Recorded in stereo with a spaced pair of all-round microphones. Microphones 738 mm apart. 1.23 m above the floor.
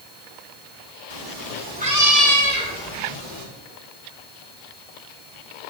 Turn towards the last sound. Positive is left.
turn(degrees=25)  # may be behind; listen again after turning